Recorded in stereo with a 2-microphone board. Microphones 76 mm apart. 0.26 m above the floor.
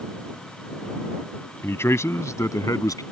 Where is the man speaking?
35° left (ahead or behind); by 3.0 s 50° left (ahead or behind).